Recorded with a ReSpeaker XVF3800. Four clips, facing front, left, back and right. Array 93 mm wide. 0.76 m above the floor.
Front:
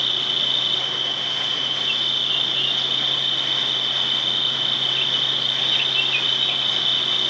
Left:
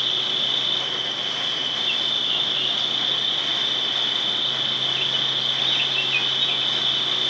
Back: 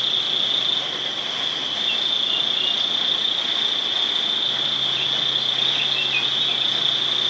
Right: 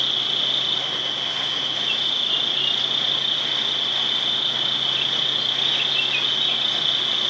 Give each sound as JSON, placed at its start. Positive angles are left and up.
{"t": 0.0, "sound": "an insect", "azimuth_deg": 5, "distance_m": 1.7}